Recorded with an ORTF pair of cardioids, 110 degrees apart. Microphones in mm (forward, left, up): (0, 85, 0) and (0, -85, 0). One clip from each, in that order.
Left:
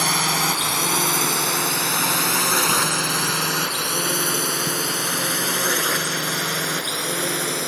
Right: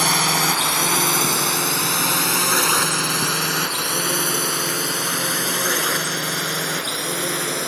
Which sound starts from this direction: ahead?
A drone, at 0.0 s.